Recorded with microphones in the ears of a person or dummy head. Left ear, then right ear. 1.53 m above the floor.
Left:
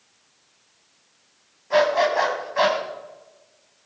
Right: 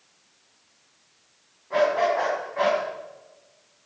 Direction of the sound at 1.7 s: 70° left (ahead or behind).